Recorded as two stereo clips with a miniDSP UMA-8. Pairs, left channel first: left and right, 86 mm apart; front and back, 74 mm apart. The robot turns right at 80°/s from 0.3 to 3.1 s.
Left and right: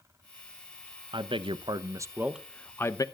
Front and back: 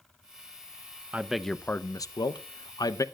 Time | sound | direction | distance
1.1 | a man speaking | 110° right | 0.6 m